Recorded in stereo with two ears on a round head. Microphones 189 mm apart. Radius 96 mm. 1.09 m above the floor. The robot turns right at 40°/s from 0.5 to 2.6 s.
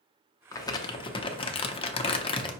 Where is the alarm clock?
No alarm clock in this recording.